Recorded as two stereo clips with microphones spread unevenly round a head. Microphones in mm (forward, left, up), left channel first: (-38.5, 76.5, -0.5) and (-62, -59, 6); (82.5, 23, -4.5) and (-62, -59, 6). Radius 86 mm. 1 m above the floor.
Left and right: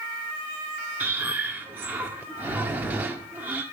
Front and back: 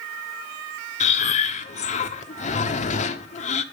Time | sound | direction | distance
1.0 | breathing | 20° right | 1.5 m